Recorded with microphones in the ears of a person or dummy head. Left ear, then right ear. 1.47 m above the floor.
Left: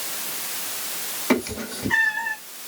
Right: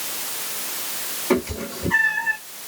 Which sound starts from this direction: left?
A cat meowing, at 1.3 s.